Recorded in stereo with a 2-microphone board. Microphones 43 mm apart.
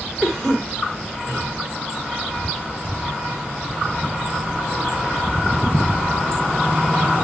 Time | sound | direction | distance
0.2 | a cough | 5° left (ahead or behind) | 1.4 m